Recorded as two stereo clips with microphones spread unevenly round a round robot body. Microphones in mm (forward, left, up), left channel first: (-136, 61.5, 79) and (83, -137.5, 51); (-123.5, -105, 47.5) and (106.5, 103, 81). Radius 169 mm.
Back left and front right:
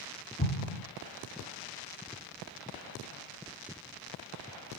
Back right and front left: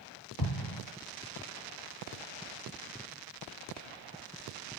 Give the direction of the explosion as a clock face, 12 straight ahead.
5 o'clock.